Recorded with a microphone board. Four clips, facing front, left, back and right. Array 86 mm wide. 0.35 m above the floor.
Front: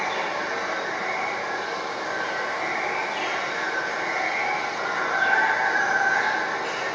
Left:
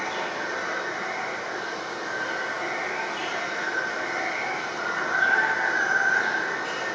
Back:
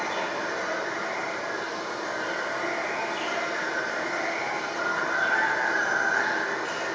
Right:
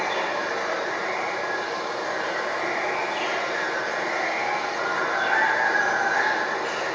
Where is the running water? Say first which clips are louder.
Right 4 dB, front 2 dB; 70° right, 1.8 m.